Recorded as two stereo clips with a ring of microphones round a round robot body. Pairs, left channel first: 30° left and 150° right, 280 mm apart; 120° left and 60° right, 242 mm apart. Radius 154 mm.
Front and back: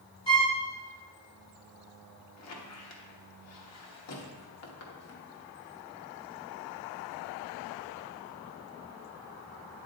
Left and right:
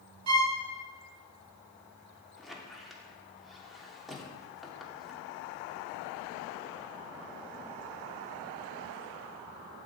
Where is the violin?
45° right, 0.9 m.